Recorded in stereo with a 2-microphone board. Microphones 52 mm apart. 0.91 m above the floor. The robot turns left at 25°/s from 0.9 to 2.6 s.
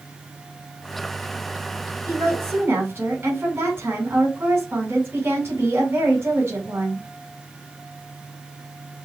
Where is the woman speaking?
65° right (ahead or behind), 4 m; by 7.0 s 50° right (ahead or behind), 4 m.